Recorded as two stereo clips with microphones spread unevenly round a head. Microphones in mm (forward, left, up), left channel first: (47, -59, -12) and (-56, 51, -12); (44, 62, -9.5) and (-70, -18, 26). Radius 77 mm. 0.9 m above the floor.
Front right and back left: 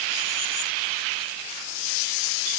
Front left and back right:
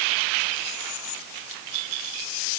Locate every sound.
Only background noise.